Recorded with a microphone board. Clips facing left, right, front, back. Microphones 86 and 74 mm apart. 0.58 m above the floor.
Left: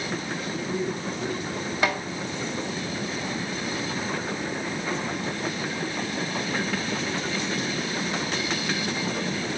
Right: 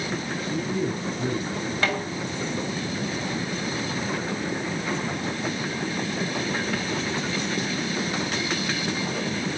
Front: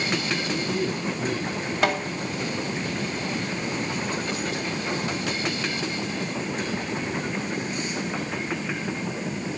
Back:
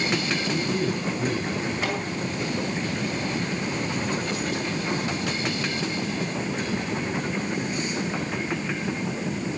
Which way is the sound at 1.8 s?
15° left.